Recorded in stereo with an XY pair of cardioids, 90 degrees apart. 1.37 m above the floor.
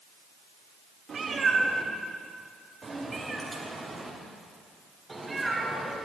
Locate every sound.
1.1 s a cat meowing: 50° right, 2 m; by 6.0 s 15° right, 5 m